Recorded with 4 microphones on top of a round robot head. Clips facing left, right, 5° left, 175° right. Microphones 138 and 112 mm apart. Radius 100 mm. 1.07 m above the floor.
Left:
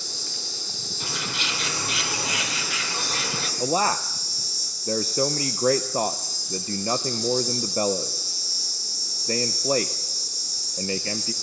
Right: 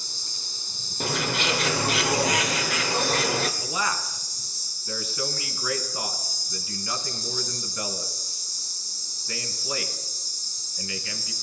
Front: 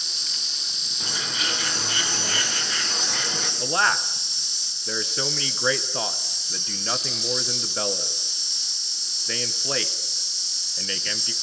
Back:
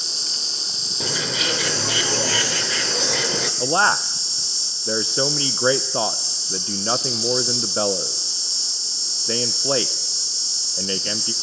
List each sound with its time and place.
0.0 s an insect: 135° left, 0.9 m
1.0 s a bird: 145° right, 2.0 m
3.6 s a man speaking: 130° left, 0.8 m